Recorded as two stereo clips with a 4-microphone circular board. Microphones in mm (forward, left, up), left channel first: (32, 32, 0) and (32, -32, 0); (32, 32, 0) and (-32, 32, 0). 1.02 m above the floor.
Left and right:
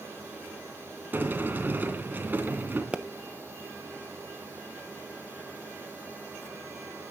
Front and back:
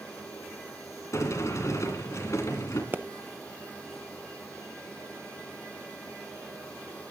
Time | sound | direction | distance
1.1 | a sliding door | 30° right | 2.5 m
2.9 | a pop | 150° right | 0.9 m